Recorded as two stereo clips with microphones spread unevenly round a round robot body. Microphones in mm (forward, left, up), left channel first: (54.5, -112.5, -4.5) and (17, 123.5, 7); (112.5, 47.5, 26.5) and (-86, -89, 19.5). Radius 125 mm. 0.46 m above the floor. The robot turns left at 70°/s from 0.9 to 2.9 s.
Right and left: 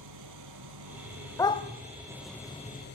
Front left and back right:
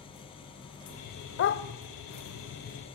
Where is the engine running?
105° left, 3 m; by 3.0 s 35° right, 3 m.